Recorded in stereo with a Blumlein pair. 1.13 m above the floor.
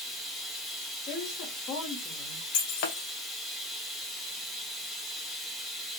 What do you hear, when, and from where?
0.0 s running water: 5° left, 1.0 m
1.1 s a woman speaking: 35° left, 1.1 m
2.5 s breaking glass: 45° left, 0.7 m